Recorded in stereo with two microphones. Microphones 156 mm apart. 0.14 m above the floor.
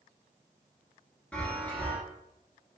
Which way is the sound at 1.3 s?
10° left (ahead or behind).